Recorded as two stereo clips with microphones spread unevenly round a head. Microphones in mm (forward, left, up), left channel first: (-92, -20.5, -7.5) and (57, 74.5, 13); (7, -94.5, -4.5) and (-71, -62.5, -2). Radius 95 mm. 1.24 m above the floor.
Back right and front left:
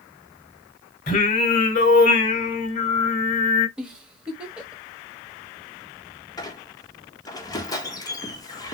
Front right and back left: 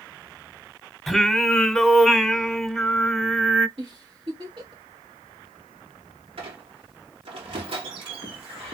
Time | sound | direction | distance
1.1 | singing | 110° right | 1.2 m
3.8 | a giggle | 115° left | 1.4 m
6.4 | a squeak | 140° left | 1.1 m